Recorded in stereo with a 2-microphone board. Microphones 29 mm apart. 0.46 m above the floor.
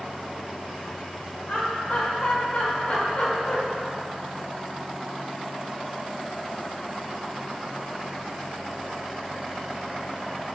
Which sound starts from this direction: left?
Laughter, at 1.5 s.